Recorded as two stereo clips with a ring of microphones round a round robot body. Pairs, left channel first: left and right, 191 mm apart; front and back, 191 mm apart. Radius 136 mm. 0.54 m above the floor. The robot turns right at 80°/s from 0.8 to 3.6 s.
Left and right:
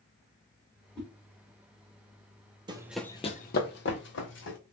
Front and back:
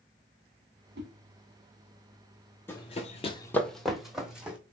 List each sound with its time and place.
0.9 s a whoosh: 170° left, 1.7 m; by 1.1 s straight behind, 1.7 m
2.7 s running footsteps: 65° right, 0.5 m; by 4.6 s 95° left, 1.4 m